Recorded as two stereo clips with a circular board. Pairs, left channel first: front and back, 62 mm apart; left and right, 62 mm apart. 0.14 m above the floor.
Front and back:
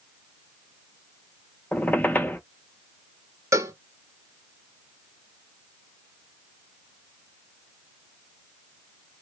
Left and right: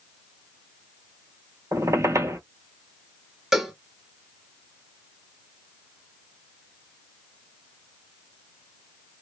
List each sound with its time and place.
1.7 s a squeak: 60° right, 0.6 m
3.5 s a cowbell: 170° right, 0.7 m